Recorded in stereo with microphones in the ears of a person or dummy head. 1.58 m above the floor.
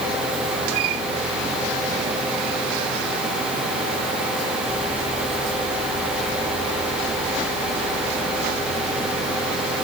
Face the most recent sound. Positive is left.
No sound to turn to.